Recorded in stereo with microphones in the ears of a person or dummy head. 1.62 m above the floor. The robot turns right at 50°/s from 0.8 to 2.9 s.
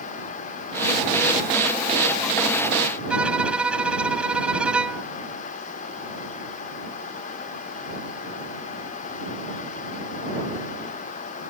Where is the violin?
Centre (ahead or behind).